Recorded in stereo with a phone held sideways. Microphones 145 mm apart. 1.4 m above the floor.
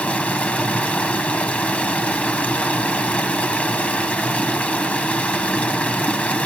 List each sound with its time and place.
0.0 s running water: 10° left (ahead or behind), 1.5 m